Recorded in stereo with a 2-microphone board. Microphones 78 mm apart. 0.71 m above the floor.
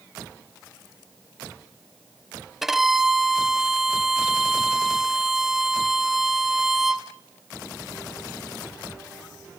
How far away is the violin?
About 1.0 m.